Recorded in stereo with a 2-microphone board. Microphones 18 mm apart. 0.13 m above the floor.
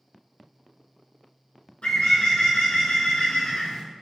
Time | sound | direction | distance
1.8 | a bird | 75° left (ahead or behind) | 1.1 m